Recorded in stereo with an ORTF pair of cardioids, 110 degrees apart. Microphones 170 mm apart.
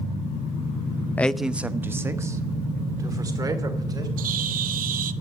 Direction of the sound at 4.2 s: 55° right.